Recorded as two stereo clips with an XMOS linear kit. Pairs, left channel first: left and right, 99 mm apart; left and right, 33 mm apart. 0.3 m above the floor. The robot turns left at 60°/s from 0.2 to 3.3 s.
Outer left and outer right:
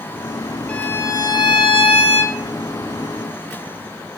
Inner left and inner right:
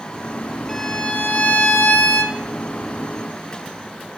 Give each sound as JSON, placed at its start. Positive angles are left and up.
{"t": 0.7, "sound": "a violin", "azimuth_deg": 165, "distance_m": 1.0}